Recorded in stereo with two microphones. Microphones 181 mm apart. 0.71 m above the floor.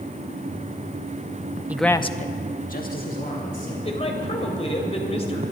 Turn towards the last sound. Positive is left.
turn(degrees=35)  # may be behind; listen again after turning